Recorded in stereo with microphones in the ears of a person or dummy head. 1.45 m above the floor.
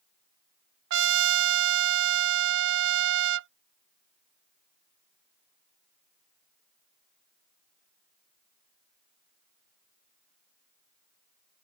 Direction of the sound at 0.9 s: 60° right (ahead or behind).